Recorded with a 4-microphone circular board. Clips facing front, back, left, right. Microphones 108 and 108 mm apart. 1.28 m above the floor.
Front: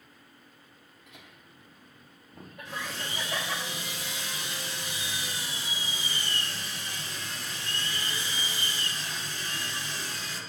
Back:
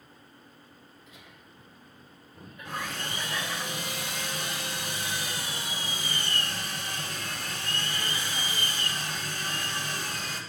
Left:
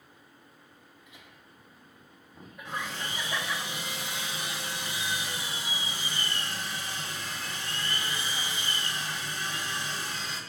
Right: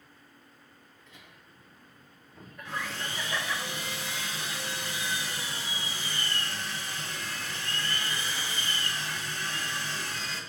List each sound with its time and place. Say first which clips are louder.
1.1 s laughter: back 1 dB, right 1 dB; 15° left, 3.5 m; by 3.6 s 5° left, 1.5 m
2.6 s sawing: back 2 dB, even; 160° left, 1.7 m